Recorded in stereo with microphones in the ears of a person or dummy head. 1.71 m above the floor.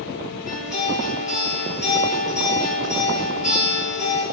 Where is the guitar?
40° left (ahead or behind), 5 m.